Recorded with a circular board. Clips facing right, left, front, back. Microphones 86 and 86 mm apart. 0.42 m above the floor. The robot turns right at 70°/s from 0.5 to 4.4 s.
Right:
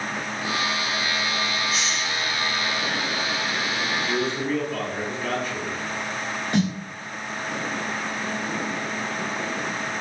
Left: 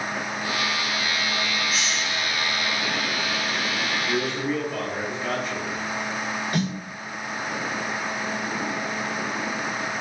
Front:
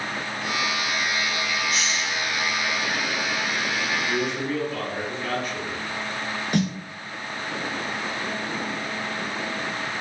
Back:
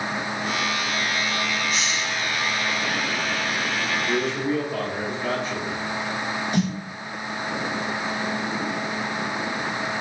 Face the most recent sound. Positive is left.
turn(degrees=-25)